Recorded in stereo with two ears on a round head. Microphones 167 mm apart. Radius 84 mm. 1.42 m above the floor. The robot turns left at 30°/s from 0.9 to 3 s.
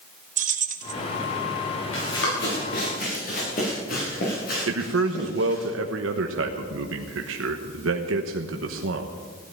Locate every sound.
0.4 s keys jangling: 40° right (ahead or behind), 1.1 m; by 0.9 s 45° right (ahead or behind), 1.1 m
1.9 s running footsteps: 70° left (ahead or behind), 8 m; by 5.7 s 55° left (ahead or behind), 9 m
4.7 s a man speaking: 80° right, 1.1 m